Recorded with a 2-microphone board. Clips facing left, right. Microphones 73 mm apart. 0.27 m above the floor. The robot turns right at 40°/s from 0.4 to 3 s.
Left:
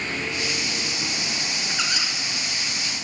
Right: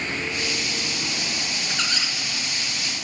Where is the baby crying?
No baby crying in this recording.